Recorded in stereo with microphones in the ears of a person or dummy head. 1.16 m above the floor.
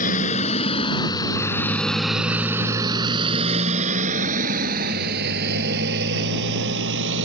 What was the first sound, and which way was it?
A motorcycle, 40° left (ahead or behind).